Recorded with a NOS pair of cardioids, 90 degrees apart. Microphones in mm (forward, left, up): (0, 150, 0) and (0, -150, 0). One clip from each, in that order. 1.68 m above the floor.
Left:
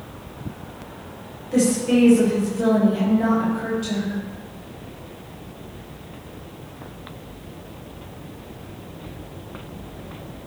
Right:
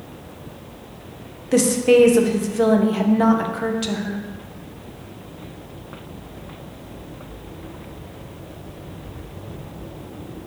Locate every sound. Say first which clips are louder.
1.5 s a woman speaking: right 6 dB; 65° right, 1.2 m